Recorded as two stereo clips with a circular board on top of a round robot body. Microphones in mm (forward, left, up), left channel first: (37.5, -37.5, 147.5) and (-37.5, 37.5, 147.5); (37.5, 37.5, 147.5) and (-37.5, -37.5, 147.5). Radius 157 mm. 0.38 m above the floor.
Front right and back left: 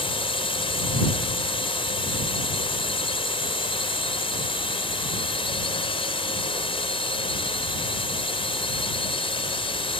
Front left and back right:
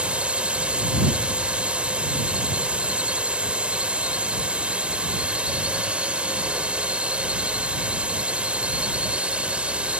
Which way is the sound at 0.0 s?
55° right.